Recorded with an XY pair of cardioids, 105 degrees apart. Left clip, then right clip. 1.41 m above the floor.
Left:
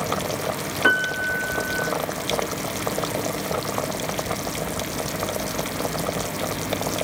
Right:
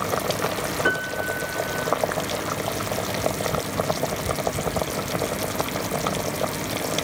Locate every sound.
0.8 s a piano: 65° left, 1.6 m